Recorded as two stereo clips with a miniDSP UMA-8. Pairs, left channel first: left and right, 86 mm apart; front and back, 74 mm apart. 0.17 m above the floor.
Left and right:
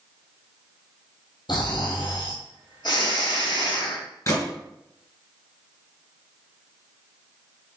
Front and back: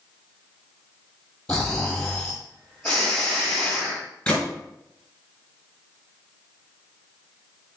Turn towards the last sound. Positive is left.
turn(degrees=75)